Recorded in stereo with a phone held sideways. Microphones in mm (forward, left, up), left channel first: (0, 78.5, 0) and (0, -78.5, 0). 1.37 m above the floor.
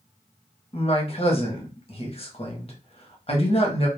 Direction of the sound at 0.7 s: 40° left (ahead or behind).